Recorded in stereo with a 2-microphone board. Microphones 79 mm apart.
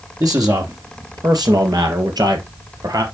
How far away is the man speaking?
About 1.9 m.